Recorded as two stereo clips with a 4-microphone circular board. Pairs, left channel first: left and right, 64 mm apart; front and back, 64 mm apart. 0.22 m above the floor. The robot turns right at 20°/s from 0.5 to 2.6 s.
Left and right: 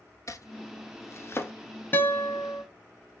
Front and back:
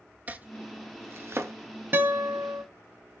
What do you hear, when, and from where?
0.3 s chopping: 120° left, 0.6 m; by 1.5 s 140° left, 0.6 m
1.9 s a guitar: 135° left, 0.7 m; by 2.6 s 150° left, 0.7 m